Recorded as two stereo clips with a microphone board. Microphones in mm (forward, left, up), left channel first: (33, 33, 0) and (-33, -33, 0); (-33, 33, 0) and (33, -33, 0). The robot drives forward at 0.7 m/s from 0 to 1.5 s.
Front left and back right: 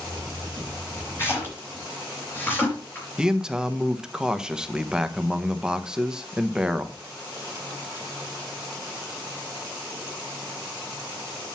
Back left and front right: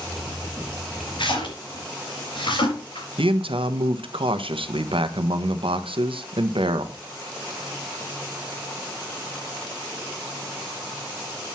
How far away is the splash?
About 5 m.